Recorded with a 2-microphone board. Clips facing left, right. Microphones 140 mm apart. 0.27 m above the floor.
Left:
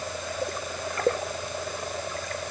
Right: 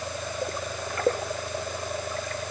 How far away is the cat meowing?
I don't hear a cat meowing.